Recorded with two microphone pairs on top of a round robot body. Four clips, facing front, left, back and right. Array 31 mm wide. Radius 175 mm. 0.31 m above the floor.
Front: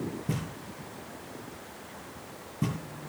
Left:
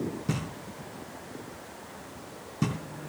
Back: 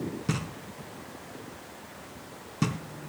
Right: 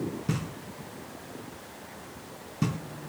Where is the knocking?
175° right, 4 m.